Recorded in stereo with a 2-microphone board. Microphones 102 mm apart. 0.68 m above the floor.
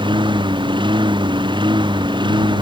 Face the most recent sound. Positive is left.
turn(degrees=-50)  # may be behind; listen again after turning